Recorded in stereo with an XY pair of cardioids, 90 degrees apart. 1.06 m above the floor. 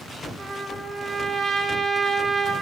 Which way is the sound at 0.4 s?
40° right.